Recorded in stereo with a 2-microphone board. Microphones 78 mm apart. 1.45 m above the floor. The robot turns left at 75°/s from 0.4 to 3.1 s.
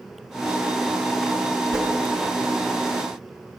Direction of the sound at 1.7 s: Centre (ahead or behind).